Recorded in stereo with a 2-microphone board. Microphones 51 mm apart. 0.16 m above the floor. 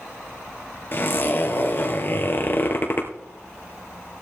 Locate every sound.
0.9 s a zipper: 45° left (ahead or behind), 2.5 m